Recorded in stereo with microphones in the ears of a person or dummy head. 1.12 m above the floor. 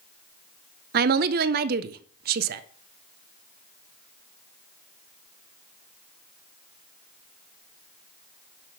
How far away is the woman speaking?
About 0.6 m.